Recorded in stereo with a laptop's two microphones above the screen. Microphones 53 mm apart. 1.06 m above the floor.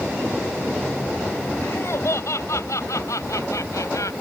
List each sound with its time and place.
1.6 s laughter: 55° left (ahead or behind); by 4.1 s 85° left